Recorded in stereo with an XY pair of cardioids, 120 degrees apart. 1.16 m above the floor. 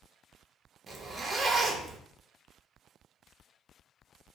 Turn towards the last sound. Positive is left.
turn(degrees=-20)